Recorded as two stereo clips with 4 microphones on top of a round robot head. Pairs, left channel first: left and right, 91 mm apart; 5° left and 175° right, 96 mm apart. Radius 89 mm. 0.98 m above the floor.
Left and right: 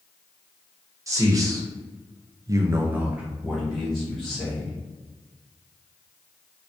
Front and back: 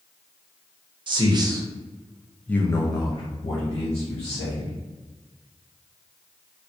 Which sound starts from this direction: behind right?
A man speaking, at 1.1 s.